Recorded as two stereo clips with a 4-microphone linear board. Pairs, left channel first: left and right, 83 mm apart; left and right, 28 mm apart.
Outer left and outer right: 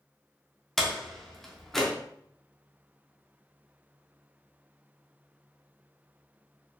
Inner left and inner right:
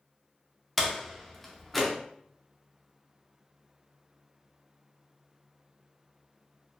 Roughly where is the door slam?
Centre.